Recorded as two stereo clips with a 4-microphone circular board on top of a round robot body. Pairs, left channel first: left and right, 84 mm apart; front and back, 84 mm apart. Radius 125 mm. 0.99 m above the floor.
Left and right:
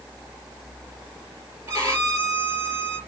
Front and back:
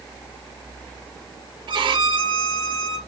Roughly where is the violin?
Behind right.